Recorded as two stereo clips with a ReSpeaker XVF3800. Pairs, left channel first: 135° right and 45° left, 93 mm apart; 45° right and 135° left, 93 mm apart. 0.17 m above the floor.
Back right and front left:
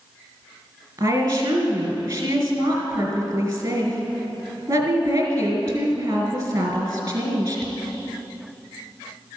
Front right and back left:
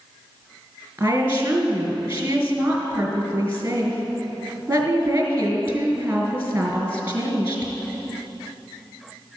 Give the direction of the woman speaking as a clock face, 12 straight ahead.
10 o'clock.